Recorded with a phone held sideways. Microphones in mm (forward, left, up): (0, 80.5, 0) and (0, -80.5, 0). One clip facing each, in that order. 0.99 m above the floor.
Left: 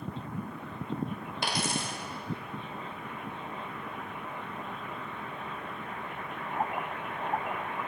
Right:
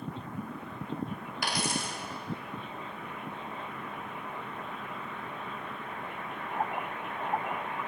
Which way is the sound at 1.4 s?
30° left (ahead or behind).